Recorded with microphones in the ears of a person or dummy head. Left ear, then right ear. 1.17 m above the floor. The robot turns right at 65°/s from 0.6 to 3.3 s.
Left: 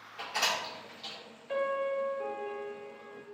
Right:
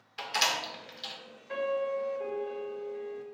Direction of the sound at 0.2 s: 45° right (ahead or behind).